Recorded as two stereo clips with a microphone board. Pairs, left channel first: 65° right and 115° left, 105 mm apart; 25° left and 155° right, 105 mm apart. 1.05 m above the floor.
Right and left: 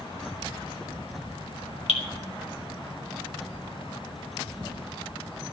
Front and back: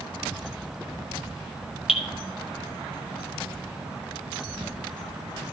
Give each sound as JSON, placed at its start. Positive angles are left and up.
{"t": 1.9, "sound": "dripping", "azimuth_deg": -70, "distance_m": 1.7}